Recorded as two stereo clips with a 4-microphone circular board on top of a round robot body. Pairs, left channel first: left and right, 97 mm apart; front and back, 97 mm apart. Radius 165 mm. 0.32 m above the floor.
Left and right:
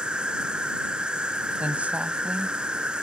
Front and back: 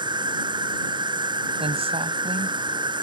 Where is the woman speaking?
165° right.